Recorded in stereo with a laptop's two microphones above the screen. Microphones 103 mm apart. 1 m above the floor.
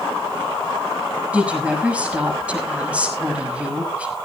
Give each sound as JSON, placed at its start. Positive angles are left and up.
{"t": 1.3, "sound": "a woman speaking", "side_deg": -10, "distance_m": 6.5}